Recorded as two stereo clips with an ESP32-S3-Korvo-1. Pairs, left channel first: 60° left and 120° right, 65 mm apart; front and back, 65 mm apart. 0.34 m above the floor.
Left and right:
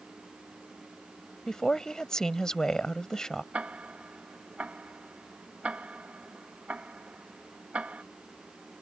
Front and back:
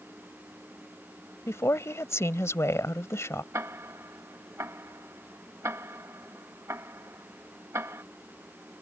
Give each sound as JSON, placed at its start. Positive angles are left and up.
{"t": 1.5, "sound": "a woman speaking", "azimuth_deg": -15}
{"t": 3.5, "sound": "ticking", "azimuth_deg": 180}